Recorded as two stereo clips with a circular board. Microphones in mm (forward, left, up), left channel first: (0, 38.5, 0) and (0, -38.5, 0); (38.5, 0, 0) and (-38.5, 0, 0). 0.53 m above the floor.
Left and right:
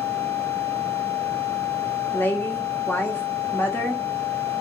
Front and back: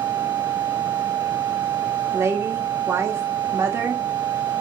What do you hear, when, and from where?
2.1 s a woman speaking: 140° left, 0.9 m